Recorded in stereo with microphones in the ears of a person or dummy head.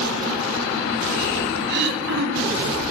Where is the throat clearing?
60° right (ahead or behind), 1.7 m.